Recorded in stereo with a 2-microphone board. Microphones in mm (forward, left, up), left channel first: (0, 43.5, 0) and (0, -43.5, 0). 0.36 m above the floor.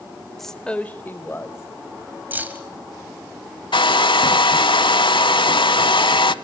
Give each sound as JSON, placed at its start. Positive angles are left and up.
{"t": 0.4, "sound": "a woman speaking", "side_deg": 5, "distance_m": 0.8}
{"t": 2.3, "sound": "keys jangling", "side_deg": -20, "distance_m": 1.7}
{"t": 3.7, "sound": "a hair dryer", "side_deg": 80, "distance_m": 0.6}